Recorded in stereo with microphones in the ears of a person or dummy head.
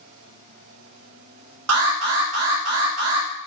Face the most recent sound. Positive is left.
turn(degrees=-85)